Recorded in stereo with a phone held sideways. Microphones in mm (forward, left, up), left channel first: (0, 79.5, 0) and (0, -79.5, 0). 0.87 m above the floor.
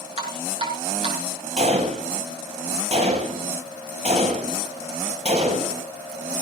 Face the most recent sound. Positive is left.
turn(degrees=-50)  # may be behind; listen again after turning